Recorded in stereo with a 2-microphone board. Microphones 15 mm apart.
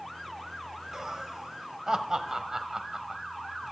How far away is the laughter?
About 1.2 m.